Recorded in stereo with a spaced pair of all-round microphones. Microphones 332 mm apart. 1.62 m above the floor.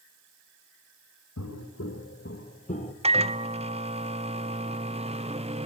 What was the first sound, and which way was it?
Footsteps, 50° left (ahead or behind).